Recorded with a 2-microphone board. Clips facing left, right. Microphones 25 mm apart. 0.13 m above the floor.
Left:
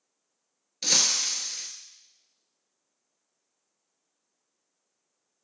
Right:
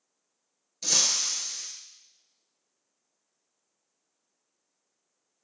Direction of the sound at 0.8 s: 40° left (ahead or behind).